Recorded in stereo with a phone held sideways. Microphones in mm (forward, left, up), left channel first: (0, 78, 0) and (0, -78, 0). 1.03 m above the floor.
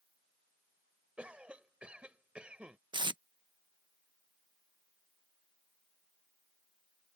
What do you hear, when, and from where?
1.2 s a cough: 5° right (ahead or behind)
2.9 s tape being pulled: 30° right (ahead or behind)